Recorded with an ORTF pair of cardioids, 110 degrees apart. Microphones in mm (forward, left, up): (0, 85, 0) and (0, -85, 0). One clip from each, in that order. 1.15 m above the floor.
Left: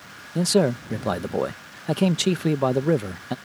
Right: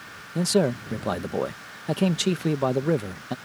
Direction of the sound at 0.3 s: 10° left.